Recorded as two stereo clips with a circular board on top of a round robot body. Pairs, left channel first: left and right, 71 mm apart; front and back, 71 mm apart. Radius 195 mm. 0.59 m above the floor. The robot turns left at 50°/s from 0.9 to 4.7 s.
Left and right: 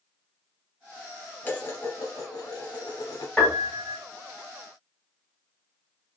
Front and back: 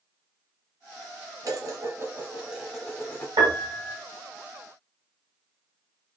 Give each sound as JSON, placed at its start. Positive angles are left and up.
{"t": 1.4, "sound": "dishes clattering", "azimuth_deg": 150, "distance_m": 0.8}
{"t": 3.4, "sound": "a piano", "azimuth_deg": 170, "distance_m": 0.8}